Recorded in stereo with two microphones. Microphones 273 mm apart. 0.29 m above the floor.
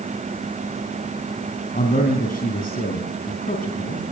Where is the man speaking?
35° left (ahead or behind), 3 m.